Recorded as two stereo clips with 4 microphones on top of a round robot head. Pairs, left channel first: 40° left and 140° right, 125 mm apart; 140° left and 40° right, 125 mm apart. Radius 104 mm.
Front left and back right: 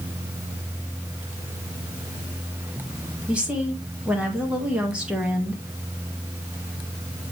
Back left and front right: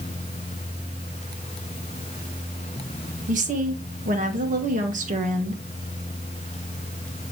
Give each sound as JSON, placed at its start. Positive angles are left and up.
{"t": 3.3, "sound": "a woman speaking", "azimuth_deg": -55, "distance_m": 2.0}